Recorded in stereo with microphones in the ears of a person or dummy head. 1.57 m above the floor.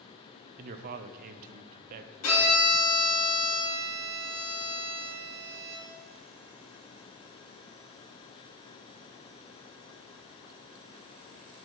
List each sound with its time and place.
0.6 s a man speaking: 50° right (ahead or behind), 0.6 m
2.2 s a violin: 85° left, 3 m